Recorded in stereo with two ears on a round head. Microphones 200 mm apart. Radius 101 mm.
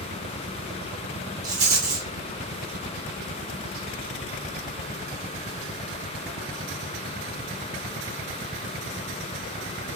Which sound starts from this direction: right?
A rattle, at 1.4 s.